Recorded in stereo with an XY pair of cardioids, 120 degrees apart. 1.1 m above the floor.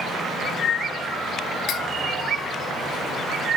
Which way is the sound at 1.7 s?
70° left.